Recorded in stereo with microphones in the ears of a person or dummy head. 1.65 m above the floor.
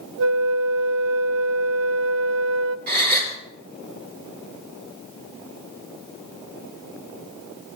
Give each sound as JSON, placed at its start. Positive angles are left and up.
{"t": 0.2, "sound": "a flute", "side_deg": -70, "distance_m": 0.5}
{"t": 2.9, "sound": "a gasp", "side_deg": -55, "distance_m": 3.5}